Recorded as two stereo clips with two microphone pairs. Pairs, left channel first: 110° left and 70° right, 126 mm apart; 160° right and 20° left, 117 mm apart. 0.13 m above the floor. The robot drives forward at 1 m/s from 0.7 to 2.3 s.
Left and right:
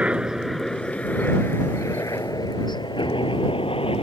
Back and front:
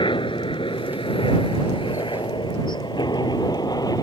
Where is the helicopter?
145° right; by 4.0 s 145° left.